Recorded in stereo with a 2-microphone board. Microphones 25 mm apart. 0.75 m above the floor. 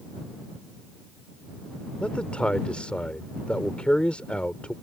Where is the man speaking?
60° left (ahead or behind).